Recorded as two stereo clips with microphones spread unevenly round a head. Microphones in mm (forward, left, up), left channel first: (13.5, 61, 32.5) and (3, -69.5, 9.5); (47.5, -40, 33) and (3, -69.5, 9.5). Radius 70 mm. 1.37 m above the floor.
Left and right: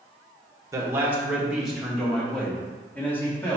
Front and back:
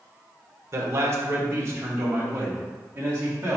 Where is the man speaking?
160° right, 1.2 m; by 3.6 s 160° left, 2.5 m.